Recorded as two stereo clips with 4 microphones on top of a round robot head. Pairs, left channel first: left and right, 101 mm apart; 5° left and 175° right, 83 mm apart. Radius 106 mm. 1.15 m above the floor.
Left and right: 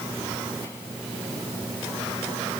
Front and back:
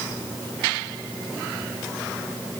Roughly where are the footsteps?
No footsteps in this recording.